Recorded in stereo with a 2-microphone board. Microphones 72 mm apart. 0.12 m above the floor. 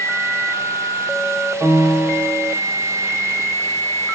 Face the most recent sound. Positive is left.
turn(degrees=-75)  # may be behind; listen again after turning